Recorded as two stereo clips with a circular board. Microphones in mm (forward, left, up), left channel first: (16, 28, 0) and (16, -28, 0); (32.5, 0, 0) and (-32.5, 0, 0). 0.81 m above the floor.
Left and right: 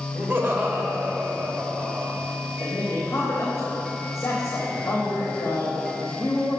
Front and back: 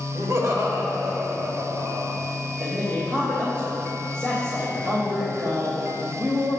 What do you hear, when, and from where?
0.1 s laughter: 145° right, 2.5 m
2.6 s a man speaking: 135° left, 3 m